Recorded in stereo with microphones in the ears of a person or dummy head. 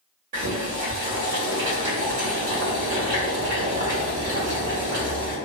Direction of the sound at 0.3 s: 40° right (ahead or behind).